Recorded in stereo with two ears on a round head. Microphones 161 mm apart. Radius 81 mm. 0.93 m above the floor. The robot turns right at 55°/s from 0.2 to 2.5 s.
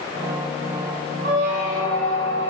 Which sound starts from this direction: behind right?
A squeak, at 1.2 s.